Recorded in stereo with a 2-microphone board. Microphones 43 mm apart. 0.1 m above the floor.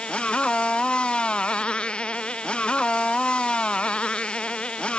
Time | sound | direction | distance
0.0 | a motorcycle | 25° left (ahead or behind) | ?